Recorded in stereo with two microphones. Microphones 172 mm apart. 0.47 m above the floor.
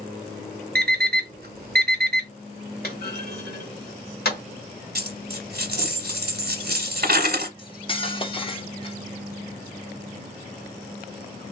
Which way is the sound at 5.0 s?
65° right (ahead or behind).